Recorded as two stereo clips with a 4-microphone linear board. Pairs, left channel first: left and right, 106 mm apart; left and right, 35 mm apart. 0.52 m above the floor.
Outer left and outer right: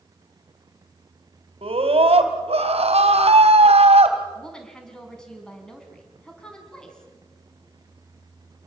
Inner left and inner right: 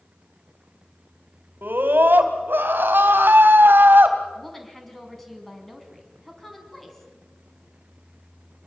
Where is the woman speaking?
5° left (ahead or behind), 5.5 m.